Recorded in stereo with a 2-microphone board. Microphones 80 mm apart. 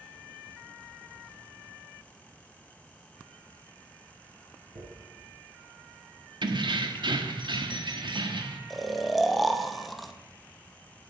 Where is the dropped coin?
80° right, 5 m.